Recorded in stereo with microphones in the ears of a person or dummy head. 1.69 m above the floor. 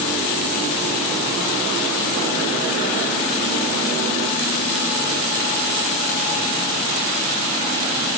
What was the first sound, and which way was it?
Only background noise.